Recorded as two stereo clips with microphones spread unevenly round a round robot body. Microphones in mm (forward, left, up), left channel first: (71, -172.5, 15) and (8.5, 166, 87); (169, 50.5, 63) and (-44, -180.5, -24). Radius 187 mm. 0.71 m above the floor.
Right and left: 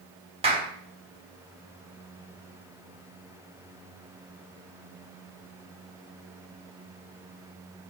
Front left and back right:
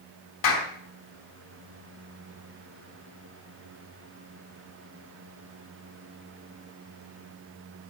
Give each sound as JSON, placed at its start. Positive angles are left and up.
{"t": 0.4, "sound": "a clap", "azimuth_deg": 25, "distance_m": 3.5}